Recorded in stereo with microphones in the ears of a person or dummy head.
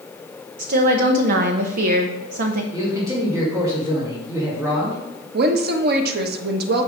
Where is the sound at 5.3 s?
60° right (ahead or behind), 1.1 m.